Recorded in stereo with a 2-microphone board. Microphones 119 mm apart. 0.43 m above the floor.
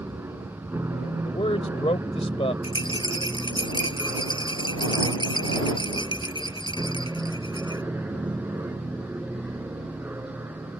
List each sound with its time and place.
0.0 s an aircraft: 20° right (ahead or behind); by 10.8 s 15° right (ahead or behind)
1.2 s a man speaking: 55° left (ahead or behind)
2.6 s a rattle: 40° left (ahead or behind)